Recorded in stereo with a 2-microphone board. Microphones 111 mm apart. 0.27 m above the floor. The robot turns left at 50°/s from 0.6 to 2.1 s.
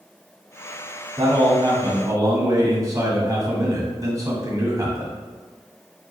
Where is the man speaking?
85° right, 1.2 m; by 5.2 s 130° right, 1.2 m.